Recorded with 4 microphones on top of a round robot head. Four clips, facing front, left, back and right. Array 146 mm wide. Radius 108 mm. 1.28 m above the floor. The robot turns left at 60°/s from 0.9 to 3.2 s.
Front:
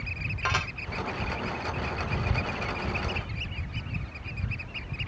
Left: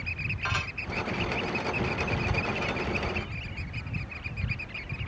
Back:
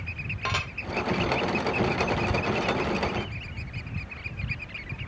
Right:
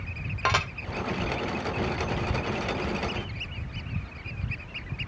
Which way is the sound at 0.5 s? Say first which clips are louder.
Right 8 dB, front 1 dB; 95° right.